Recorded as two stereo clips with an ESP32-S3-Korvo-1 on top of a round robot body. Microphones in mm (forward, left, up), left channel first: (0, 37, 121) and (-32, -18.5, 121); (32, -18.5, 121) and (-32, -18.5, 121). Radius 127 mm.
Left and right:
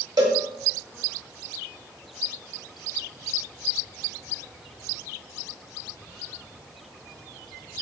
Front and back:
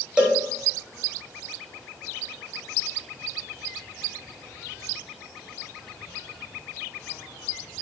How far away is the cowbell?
About 0.9 m.